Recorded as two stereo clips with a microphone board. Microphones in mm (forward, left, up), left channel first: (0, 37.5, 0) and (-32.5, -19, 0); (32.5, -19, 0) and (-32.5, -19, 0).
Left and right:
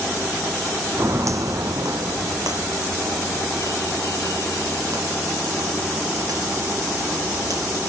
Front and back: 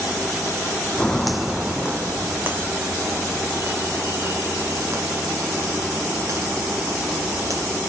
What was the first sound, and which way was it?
Footsteps, 80° right.